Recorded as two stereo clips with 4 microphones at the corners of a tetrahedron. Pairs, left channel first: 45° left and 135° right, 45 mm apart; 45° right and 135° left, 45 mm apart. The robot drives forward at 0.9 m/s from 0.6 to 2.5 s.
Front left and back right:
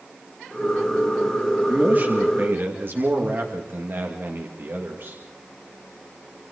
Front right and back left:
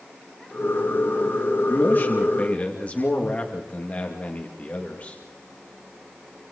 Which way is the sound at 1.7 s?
80° right.